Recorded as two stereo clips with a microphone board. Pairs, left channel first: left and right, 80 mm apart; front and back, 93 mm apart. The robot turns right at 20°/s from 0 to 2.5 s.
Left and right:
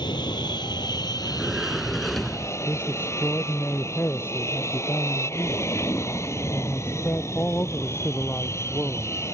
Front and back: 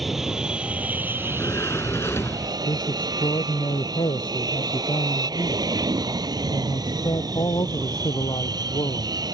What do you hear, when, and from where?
0.0 s an aircraft: 90° left; by 9.3 s 140° left
1.2 s a sliding door: 15° right; by 2.6 s 10° left
2.7 s a man speaking: 30° left